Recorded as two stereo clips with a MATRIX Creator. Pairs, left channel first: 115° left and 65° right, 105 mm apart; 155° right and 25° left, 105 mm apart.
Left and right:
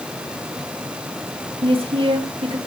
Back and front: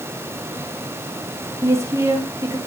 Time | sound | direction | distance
1.6 | a woman speaking | 40° right | 1.8 m